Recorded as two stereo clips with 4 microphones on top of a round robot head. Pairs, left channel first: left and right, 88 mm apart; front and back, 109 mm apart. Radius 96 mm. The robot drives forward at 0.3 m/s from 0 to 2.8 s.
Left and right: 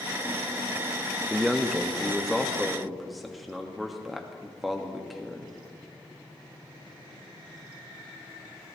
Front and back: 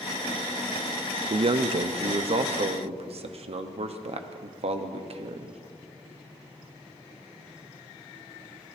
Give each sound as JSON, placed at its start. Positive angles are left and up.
{"t": 1.3, "sound": "a man speaking", "azimuth_deg": 180, "distance_m": 0.7}